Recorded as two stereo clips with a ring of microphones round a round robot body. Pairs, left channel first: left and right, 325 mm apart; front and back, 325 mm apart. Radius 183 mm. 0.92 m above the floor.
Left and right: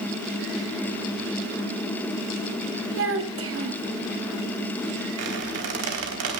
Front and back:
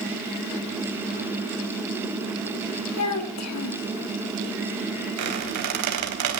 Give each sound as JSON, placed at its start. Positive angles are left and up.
{"t": 3.0, "sound": "a child speaking", "azimuth_deg": -40, "distance_m": 2.5}
{"t": 5.2, "sound": "a squeak", "azimuth_deg": -145, "distance_m": 3.5}